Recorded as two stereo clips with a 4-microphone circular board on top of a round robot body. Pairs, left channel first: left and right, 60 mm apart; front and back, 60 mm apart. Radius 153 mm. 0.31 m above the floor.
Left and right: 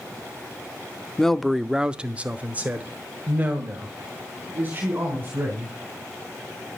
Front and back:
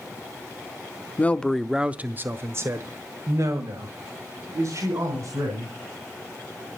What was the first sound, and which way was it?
A man speaking, 20° left.